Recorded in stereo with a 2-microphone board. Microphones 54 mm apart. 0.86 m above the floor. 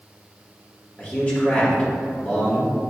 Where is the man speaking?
25° left (ahead or behind), 1.3 m.